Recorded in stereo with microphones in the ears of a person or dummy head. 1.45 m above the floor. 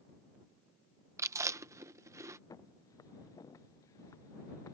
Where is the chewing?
15° right (ahead or behind).